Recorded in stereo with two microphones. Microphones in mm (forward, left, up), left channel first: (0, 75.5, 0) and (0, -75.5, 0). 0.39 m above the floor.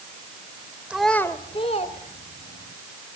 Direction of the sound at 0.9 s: 5° right (ahead or behind).